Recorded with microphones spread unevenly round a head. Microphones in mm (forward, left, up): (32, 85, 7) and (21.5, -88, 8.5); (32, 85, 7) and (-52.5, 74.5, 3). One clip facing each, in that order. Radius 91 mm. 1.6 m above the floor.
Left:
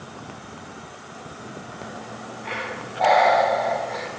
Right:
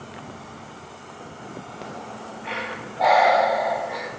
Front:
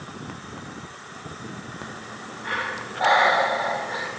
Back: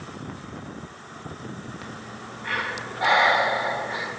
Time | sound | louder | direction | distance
1.8 | breathing | even, front 1 dB | 5° right | 0.7 m